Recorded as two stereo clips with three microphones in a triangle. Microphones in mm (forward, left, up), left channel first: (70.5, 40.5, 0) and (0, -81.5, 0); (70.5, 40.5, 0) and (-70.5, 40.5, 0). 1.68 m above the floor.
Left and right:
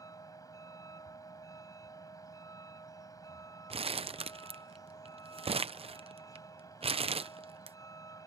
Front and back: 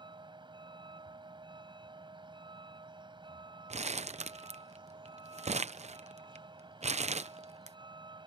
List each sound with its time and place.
0.0 s a vehicle: 125° left
3.7 s crumpling: 155° right